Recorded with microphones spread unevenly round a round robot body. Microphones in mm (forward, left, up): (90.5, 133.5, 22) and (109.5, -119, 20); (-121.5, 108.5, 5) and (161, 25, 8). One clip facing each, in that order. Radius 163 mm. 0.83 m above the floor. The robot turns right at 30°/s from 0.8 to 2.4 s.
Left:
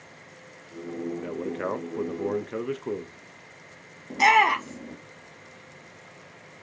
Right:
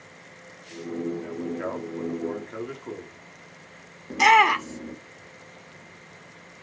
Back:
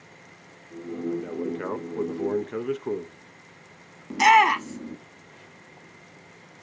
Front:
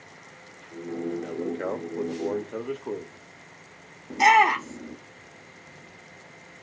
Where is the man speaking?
85° left, 0.6 m; by 3.2 s 120° left, 0.6 m.